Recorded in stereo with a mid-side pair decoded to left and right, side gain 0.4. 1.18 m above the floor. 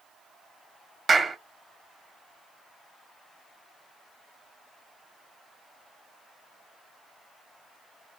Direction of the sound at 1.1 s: 40° right.